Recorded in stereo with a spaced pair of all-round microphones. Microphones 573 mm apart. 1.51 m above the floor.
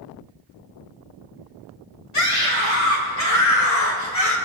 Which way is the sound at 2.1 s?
65° left (ahead or behind).